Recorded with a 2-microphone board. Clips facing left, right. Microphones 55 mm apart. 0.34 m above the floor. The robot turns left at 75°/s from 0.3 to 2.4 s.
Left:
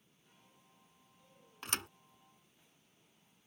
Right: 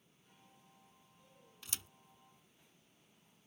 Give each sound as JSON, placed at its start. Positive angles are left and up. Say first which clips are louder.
{"t": 1.6, "sound": "a thud", "louder": "left 10 dB", "side_deg": 55}